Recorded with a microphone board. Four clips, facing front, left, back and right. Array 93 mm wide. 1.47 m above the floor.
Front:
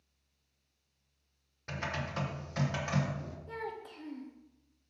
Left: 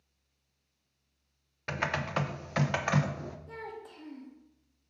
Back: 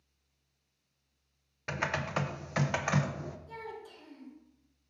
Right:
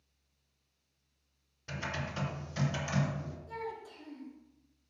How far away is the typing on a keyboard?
About 0.7 m.